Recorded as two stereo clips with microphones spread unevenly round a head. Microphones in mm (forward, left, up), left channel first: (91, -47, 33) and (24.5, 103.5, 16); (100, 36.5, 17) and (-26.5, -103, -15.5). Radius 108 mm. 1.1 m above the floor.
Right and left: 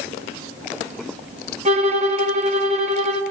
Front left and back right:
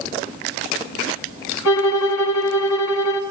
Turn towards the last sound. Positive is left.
turn(degrees=65)